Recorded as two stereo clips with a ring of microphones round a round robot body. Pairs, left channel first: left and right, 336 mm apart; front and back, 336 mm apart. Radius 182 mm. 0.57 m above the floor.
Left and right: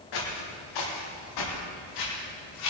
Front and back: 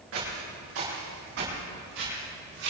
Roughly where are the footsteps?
Behind left.